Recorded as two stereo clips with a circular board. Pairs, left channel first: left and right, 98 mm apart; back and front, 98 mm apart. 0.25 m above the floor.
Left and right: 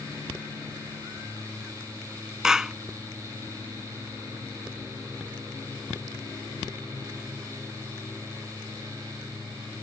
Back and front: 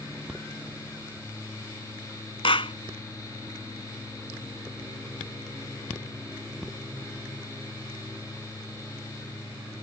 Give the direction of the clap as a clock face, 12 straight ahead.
6 o'clock.